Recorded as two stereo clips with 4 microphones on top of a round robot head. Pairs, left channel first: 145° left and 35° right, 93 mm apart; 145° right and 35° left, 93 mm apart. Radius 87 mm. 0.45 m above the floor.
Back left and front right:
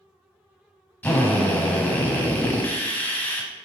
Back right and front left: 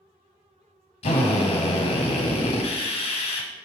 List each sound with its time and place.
1.0 s a drill: 140° right, 1.3 m